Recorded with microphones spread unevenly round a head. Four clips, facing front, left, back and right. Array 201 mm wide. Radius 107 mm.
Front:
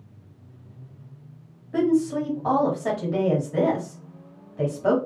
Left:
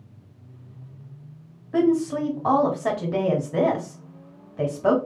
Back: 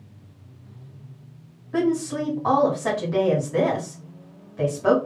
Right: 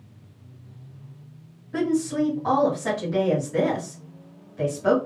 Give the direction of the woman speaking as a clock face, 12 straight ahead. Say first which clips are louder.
Left 3 dB, front 2 dB; 8 o'clock.